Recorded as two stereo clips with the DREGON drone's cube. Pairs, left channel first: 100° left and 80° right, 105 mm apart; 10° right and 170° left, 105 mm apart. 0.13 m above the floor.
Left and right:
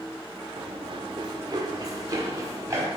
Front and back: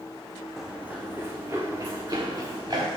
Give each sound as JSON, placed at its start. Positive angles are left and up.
{"t": 0.6, "sound": "running footsteps", "azimuth_deg": -105, "distance_m": 0.7}